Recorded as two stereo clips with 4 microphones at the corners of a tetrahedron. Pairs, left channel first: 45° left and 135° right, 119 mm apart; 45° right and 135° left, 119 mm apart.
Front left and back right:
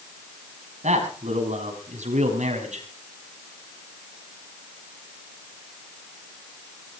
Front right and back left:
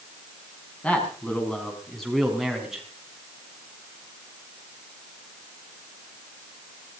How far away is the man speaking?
About 6 m.